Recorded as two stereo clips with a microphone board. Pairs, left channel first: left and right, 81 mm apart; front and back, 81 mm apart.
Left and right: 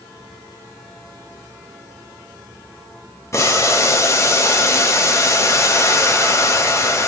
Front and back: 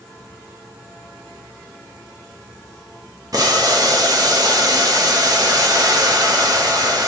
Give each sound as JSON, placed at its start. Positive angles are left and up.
{"t": 3.3, "sound": "boiling", "azimuth_deg": 140, "distance_m": 0.7}